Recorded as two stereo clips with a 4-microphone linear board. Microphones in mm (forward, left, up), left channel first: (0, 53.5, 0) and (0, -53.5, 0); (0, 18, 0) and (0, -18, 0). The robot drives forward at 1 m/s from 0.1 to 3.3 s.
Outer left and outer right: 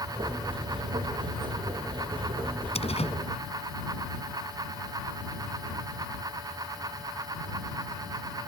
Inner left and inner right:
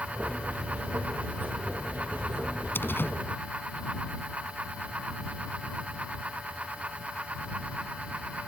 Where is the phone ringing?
I don't hear a phone ringing.